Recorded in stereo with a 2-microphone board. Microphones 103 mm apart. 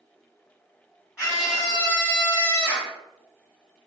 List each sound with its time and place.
1.2 s a scream: 5° right (ahead or behind), 1.2 m; by 2.9 s 15° right (ahead or behind), 1.6 m